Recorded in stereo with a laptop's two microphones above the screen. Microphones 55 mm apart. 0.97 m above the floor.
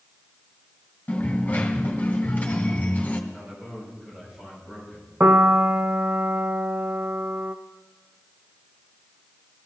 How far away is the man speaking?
About 5.5 m.